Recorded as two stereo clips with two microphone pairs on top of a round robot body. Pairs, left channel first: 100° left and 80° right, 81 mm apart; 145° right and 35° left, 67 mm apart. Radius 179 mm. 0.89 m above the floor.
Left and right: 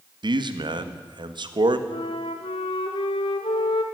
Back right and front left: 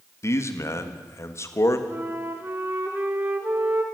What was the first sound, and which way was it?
A man speaking, 100° right.